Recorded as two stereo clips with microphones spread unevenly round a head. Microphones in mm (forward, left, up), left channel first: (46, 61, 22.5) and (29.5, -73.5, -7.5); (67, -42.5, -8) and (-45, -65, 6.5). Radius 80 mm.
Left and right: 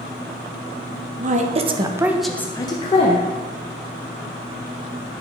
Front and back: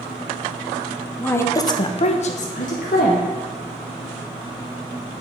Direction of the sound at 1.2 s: 65° right.